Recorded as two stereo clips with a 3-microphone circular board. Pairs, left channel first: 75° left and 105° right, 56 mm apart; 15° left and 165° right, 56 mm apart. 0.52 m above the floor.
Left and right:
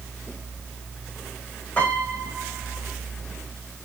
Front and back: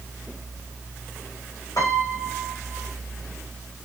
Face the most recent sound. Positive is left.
turn(degrees=15)